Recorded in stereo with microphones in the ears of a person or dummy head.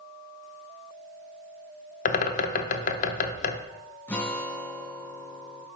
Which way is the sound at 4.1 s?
5° left (ahead or behind).